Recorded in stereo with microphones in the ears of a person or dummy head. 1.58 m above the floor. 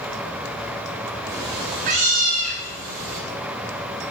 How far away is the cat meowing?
About 1.2 m.